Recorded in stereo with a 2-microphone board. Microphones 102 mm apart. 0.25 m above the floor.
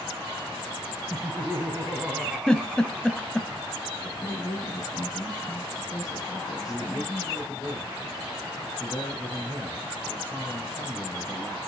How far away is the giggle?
About 1.1 m.